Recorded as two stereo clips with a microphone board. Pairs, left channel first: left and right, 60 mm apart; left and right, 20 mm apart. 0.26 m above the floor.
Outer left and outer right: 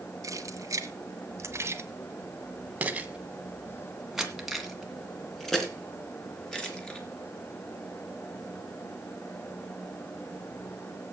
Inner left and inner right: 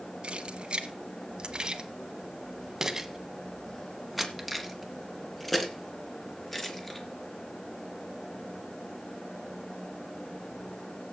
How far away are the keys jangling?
About 1.6 m.